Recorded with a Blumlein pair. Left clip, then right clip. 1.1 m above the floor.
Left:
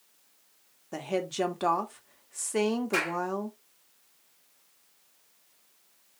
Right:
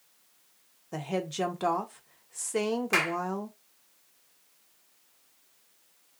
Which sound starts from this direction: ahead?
A woman speaking, at 0.9 s.